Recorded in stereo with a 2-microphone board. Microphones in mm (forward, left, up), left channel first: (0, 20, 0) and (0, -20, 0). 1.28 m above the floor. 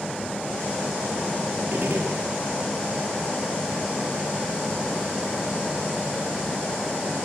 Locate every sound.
1.7 s a gunshot: 65° right (ahead or behind), 3.5 m